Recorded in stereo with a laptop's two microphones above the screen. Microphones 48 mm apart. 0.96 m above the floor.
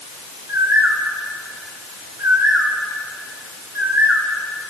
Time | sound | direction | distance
0.5 | a bird | 60° right (ahead or behind) | 3 m